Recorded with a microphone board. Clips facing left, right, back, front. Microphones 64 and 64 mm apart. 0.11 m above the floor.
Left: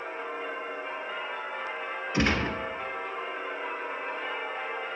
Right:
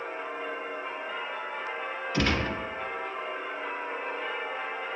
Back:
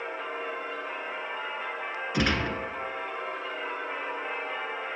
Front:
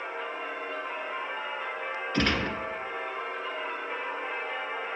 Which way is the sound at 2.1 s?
120° left.